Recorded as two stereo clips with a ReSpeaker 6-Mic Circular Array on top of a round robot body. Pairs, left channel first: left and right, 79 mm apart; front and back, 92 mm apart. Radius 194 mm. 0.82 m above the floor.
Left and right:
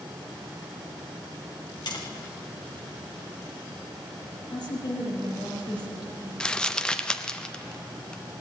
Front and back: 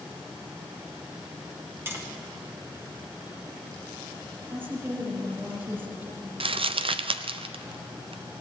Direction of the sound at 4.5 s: 115° left.